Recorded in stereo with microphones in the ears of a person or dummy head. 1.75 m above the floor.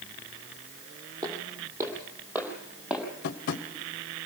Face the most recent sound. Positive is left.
turn(degrees=55)  # may be behind; listen again after turning